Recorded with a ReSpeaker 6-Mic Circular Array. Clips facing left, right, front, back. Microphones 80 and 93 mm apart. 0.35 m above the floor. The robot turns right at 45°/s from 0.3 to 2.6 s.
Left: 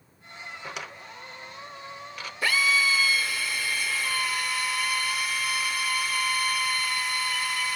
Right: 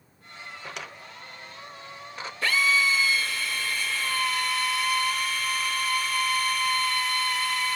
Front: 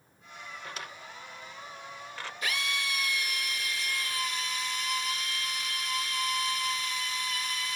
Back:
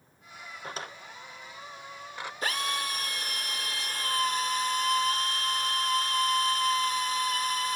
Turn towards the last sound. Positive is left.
turn(degrees=170)